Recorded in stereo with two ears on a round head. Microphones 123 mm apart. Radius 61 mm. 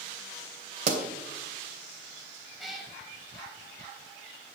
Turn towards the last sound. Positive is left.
turn(degrees=0)  # may be behind; listen again after turning